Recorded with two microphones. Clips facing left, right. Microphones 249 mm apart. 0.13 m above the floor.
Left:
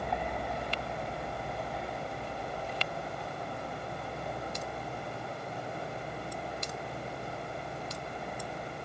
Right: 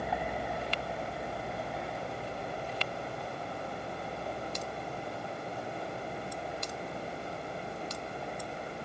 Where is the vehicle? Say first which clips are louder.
Even; 5° right (ahead or behind); by 8.8 s centre (ahead or behind).